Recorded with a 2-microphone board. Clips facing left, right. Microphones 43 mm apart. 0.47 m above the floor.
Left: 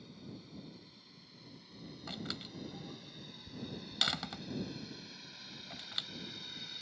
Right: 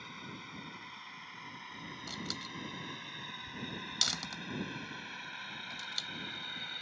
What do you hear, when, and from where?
0.0 s a drone: 65° right (ahead or behind); by 6.8 s 35° right (ahead or behind)
2.1 s a door slam: 20° left (ahead or behind)